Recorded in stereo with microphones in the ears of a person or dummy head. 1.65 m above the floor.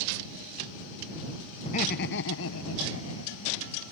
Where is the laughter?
35° left (ahead or behind); by 3.8 s 70° left (ahead or behind).